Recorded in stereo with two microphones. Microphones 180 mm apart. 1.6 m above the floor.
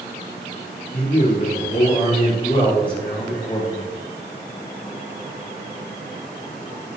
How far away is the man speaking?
About 5 m.